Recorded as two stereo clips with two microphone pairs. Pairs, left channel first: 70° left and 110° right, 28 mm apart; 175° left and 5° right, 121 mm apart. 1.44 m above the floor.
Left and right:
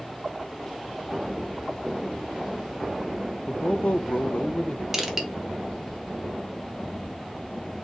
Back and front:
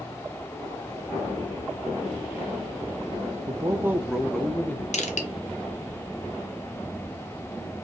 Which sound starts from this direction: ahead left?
A man speaking, at 3.5 s.